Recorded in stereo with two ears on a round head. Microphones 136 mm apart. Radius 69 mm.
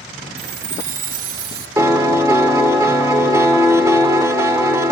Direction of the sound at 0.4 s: 65° right (ahead or behind).